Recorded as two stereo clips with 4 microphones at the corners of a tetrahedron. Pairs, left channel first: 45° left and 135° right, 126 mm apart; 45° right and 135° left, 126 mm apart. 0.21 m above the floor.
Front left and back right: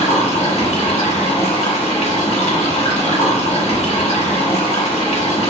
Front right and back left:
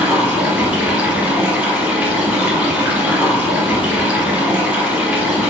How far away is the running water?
About 1.6 m.